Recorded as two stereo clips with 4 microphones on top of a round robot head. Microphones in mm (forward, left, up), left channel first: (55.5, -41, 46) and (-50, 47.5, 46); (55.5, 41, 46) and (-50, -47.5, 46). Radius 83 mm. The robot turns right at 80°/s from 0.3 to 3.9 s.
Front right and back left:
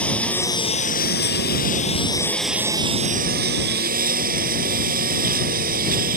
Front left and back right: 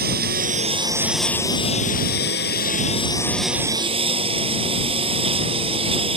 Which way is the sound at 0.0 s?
120° right.